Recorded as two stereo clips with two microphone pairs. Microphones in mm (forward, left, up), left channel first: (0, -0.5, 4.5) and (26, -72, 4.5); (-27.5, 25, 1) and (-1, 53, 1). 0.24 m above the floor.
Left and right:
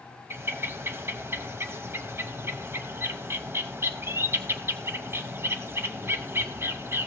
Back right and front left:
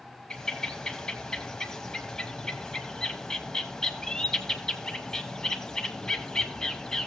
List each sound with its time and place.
0.3 s a bird: 65° right, 0.7 m